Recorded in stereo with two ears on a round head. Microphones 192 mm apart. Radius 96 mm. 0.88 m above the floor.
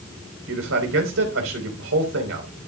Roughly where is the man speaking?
Right.